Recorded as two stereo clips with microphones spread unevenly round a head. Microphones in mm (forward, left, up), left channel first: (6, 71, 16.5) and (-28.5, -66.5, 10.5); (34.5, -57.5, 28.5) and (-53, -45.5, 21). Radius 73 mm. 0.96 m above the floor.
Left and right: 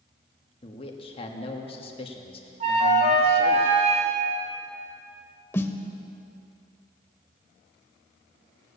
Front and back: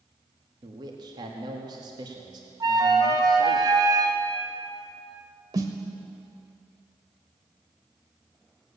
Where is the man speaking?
125° left, 1.7 m.